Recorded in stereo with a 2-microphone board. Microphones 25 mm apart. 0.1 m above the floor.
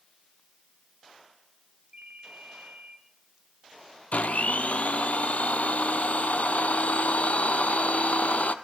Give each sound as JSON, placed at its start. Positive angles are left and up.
{"t": 1.9, "sound": "a ringtone", "side_deg": -65, "distance_m": 4.0}
{"t": 4.1, "sound": "a blender", "side_deg": 65, "distance_m": 1.1}